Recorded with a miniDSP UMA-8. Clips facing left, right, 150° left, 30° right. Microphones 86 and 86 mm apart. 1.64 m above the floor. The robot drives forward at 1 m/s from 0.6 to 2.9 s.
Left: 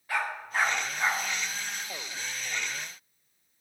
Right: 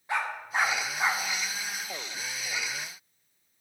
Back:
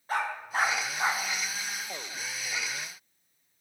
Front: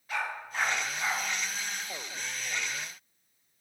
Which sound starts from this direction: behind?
A dog barking, at 0.1 s.